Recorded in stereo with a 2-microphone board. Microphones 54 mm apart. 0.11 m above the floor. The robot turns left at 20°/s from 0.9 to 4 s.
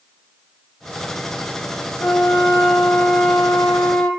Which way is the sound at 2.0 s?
105° left.